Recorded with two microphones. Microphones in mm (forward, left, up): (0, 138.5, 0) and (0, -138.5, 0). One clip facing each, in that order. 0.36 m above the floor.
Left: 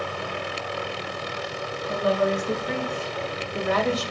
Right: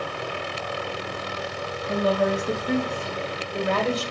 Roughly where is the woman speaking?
Right.